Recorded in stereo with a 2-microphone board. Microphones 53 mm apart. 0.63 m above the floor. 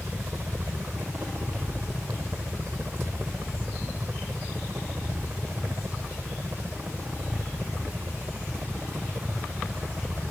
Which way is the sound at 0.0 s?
50° right (ahead or behind).